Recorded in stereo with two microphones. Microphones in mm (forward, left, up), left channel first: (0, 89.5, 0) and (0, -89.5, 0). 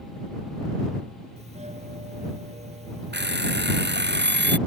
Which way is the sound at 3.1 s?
75° right (ahead or behind).